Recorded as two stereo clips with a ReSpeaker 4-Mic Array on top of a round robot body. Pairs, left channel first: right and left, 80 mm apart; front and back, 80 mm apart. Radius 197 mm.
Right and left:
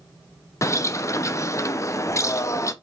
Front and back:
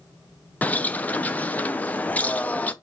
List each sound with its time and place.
0.6 s a bird: 60° right, 0.7 m